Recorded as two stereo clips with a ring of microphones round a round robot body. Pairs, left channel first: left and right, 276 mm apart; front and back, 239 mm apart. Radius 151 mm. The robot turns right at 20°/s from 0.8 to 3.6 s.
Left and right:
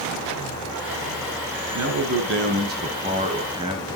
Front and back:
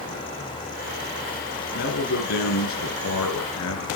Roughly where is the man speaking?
Ahead right.